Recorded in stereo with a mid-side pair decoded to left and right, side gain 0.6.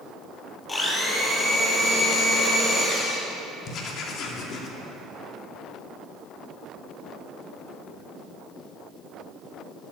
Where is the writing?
50° left, 2.5 m.